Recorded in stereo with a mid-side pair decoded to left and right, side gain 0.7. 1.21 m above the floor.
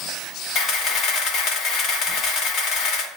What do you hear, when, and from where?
0.6 s a camera shutter: 55° left, 1.8 m